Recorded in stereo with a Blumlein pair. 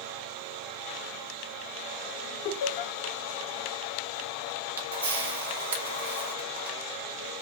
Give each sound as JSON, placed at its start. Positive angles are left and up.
{"t": 2.5, "sound": "laughter", "azimuth_deg": 45, "distance_m": 1.0}
{"t": 4.8, "sound": "a camera shutter", "azimuth_deg": -65, "distance_m": 1.4}